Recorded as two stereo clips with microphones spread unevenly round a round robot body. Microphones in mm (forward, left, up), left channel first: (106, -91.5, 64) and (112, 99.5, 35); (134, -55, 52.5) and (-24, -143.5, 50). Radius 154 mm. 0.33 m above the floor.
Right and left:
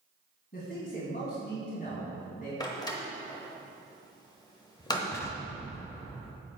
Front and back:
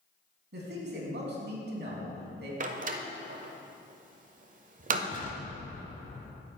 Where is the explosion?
15° right, 1.3 m.